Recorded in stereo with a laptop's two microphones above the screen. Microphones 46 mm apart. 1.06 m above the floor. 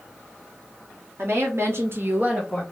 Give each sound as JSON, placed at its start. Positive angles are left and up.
{"t": 1.2, "sound": "a woman speaking", "side_deg": -65, "distance_m": 1.3}